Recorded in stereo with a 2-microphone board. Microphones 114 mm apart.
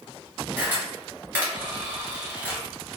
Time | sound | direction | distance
0.6 | a camera shutter | 20° right (ahead or behind) | 1.6 m